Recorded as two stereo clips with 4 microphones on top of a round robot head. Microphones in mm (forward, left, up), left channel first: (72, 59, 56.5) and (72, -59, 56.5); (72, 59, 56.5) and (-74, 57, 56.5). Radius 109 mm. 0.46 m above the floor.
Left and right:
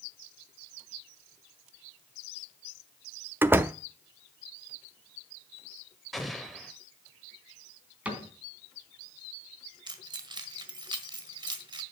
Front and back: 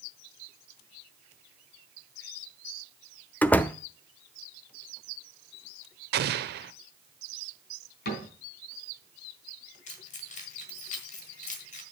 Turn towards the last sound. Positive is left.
turn(degrees=-40)